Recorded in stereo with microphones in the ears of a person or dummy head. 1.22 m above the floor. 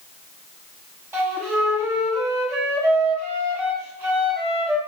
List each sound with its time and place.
1.1 s a flute: 20° right (ahead or behind), 9 m